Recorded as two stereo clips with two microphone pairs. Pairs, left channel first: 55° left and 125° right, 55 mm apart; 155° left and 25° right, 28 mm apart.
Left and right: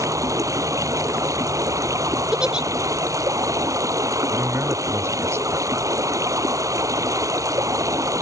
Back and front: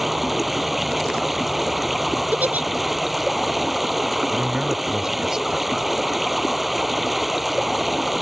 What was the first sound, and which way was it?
Running water, 110° right.